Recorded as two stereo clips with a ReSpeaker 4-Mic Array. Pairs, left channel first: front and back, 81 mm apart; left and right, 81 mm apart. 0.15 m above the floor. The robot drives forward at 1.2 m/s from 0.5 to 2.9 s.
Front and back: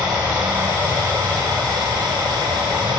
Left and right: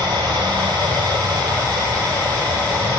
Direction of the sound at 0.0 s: 110° right.